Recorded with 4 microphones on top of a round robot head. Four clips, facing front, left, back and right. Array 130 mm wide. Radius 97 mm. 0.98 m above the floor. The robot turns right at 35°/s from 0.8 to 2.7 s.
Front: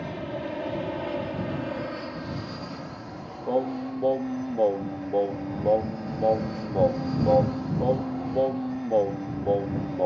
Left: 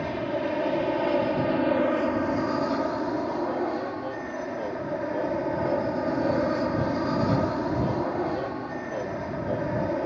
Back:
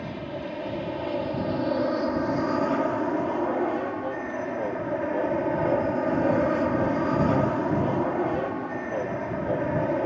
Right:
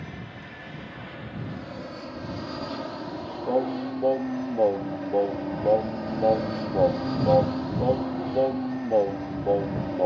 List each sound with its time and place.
0.0 s an aircraft: 85° left; by 10.1 s 150° left
3.5 s singing: 50° right